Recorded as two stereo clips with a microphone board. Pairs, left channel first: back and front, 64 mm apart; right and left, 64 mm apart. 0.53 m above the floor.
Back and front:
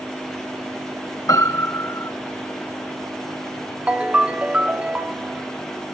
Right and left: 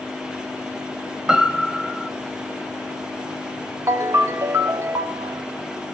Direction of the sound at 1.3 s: 170° left.